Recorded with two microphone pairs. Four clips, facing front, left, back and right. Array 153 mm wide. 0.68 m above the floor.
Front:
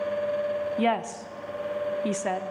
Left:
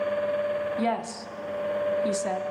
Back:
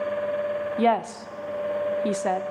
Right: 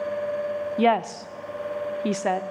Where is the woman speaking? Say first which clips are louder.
Right 6 dB, back 6 dB; 140° right, 1.0 m.